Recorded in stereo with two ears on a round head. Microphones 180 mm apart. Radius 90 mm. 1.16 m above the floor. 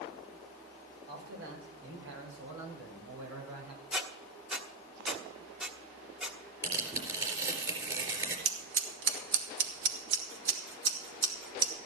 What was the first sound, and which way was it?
A man speaking, 60° right (ahead or behind).